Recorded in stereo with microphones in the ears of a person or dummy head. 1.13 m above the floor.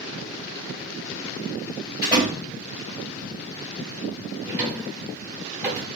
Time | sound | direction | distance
2.0 | a door slam | 30° left (ahead or behind) | 3.5 m
4.4 | a drawer | 10° right (ahead or behind) | 1.0 m